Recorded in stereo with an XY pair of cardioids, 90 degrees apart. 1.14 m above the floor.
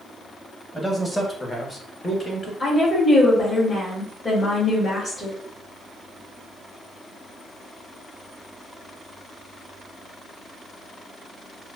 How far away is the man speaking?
About 1.6 m.